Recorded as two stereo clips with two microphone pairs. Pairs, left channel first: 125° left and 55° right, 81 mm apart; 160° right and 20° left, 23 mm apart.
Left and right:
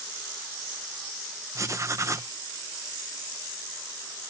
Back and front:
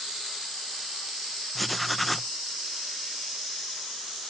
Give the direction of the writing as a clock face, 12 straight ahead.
2 o'clock.